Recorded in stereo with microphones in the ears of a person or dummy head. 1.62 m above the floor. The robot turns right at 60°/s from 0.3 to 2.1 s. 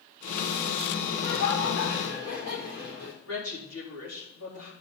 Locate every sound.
1.1 s laughter: 65° left, 4.5 m; by 3.1 s 125° left, 4.5 m
3.2 s a woman speaking: 70° left (ahead or behind), 4 m